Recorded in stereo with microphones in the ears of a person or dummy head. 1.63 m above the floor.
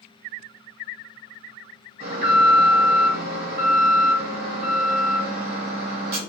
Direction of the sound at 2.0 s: 55° right (ahead or behind).